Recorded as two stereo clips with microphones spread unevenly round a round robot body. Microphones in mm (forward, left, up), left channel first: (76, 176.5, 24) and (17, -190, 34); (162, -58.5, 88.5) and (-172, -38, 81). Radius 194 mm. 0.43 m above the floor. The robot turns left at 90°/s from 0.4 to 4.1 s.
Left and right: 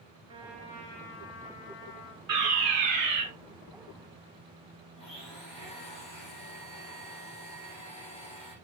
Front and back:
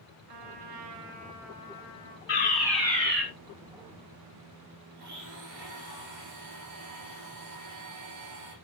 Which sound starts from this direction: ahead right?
A fire alarm, at 2.3 s.